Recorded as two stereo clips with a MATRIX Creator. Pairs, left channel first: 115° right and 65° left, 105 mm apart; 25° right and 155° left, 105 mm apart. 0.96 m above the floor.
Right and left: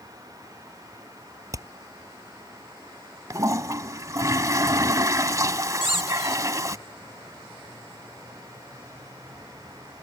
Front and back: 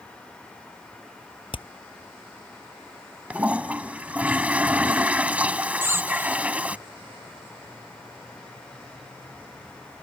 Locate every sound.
1.5 s hammering: 10° left
3.3 s a toilet flushing: 90° left
5.8 s a squeak: 90° left